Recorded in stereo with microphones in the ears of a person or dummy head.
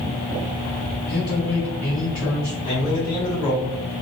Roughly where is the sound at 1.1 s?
Left.